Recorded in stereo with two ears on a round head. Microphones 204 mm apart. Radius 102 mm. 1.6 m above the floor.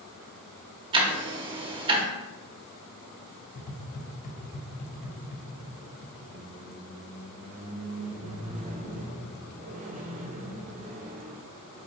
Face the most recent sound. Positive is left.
turn(degrees=-35)  # may be behind; listen again after turning